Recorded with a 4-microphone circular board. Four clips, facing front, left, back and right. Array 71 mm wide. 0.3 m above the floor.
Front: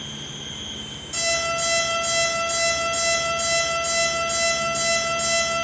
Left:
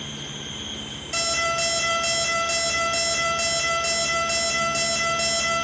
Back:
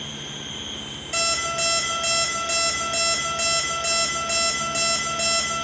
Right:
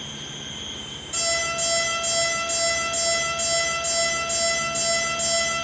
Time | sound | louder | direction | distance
1.1 | an alarm clock | left 2 dB, front 1 dB | 150° left | 3 m